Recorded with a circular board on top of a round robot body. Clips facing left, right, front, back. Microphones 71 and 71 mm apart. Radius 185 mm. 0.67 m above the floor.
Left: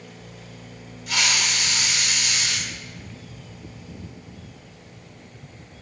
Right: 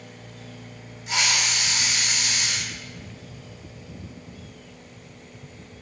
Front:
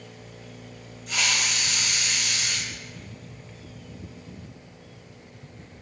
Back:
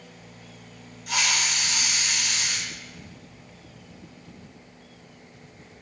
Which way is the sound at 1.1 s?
155° right.